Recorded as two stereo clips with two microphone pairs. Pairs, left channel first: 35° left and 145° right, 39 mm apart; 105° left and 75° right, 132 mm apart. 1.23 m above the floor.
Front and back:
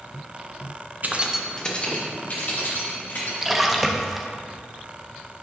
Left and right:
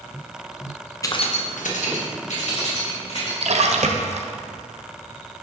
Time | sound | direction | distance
1.0 | keys jangling | 170° left | 0.7 m
3.4 | a splash | 60° right | 0.5 m